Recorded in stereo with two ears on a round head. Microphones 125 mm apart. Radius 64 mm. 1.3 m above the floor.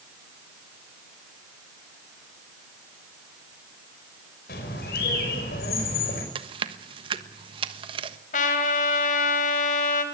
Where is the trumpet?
65° left (ahead or behind), 3.5 m.